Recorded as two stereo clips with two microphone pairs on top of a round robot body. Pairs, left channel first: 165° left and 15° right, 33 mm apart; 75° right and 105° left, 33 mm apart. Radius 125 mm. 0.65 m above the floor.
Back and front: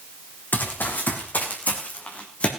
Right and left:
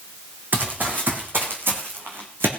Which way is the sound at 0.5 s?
130° left.